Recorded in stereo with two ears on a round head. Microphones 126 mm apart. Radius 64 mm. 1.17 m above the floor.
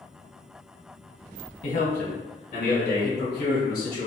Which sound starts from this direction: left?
A man speaking, at 1.6 s.